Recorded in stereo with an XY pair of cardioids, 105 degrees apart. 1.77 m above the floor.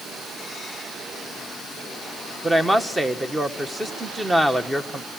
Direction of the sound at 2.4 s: 15° right.